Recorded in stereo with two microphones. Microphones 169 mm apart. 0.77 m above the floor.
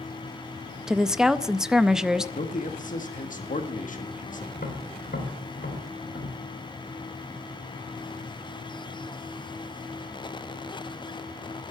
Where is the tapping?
75° left (ahead or behind), 2.5 m.